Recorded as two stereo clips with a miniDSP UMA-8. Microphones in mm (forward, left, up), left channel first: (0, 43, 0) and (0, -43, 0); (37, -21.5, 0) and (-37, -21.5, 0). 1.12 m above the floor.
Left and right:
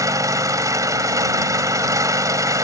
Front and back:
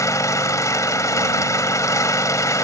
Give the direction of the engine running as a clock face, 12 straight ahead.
1 o'clock.